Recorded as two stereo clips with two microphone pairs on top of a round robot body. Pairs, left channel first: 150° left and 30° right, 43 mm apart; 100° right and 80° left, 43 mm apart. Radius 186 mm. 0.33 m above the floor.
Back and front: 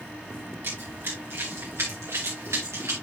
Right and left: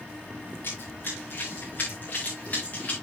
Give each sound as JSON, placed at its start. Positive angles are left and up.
{"t": 0.6, "sound": "running footsteps", "azimuth_deg": -65, "distance_m": 4.0}